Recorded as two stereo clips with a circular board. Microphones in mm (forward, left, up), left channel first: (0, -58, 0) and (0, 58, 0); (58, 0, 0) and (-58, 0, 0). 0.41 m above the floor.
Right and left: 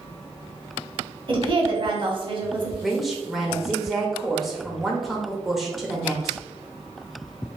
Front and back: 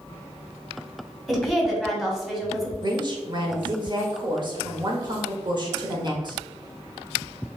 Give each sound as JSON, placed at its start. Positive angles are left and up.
{"t": 1.3, "sound": "a woman speaking", "azimuth_deg": 90, "distance_m": 1.2}
{"t": 2.8, "sound": "a woman speaking", "azimuth_deg": 180, "distance_m": 1.0}